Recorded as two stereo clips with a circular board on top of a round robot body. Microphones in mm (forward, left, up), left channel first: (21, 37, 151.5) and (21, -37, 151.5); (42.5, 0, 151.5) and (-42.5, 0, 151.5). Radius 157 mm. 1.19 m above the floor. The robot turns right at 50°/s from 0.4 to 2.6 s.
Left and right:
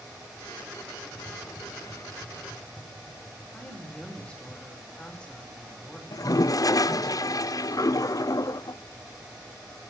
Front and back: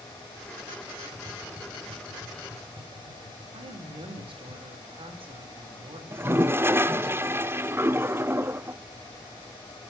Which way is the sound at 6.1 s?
120° left.